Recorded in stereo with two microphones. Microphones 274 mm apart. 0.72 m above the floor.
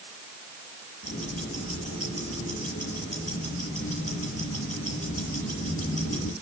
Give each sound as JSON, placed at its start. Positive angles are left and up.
{"t": 1.0, "sound": "ticking", "side_deg": 60, "distance_m": 7.0}